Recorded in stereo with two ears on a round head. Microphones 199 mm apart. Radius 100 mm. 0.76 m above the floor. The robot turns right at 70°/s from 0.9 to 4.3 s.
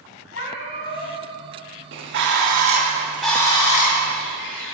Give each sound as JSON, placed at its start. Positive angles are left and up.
{"t": 0.3, "sound": "a cat meowing", "side_deg": 65, "distance_m": 2.5}
{"t": 1.9, "sound": "a bird", "azimuth_deg": -90, "distance_m": 1.2}